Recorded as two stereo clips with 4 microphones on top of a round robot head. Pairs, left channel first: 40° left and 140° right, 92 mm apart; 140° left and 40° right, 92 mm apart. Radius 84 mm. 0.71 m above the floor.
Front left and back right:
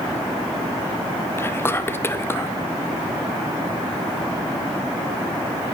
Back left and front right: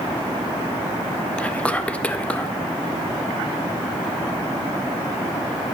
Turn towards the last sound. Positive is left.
turn(degrees=80)